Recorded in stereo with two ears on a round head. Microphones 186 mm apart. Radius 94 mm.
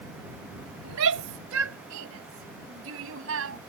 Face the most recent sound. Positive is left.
turn(degrees=-70)  # may be behind; listen again after turning